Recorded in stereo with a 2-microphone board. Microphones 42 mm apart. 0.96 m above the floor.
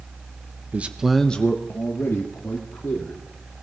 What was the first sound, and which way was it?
A man speaking, 35° right (ahead or behind).